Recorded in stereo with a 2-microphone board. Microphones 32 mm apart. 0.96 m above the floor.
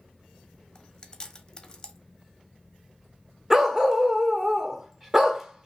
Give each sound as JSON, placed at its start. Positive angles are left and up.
{"t": 0.8, "sound": "chewing", "side_deg": 25, "distance_m": 0.8}
{"t": 3.5, "sound": "a dog barking", "side_deg": -15, "distance_m": 0.6}